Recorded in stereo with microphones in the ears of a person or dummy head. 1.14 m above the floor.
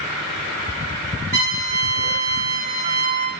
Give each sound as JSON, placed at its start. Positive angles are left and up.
{"t": 1.3, "sound": "a trumpet", "side_deg": -55, "distance_m": 1.3}